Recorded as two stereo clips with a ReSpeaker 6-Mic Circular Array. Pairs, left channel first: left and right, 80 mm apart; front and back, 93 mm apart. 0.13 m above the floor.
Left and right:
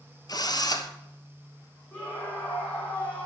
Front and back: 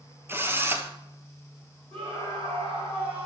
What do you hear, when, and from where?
0.3 s a drill: 115° left, 1.2 m
1.9 s a scream: 160° left, 6 m